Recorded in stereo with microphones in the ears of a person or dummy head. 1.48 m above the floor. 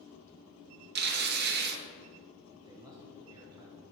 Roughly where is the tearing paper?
Right.